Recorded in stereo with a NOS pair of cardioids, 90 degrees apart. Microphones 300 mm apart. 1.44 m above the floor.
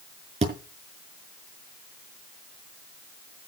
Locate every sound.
0.4 s a thud: 20° right, 6 m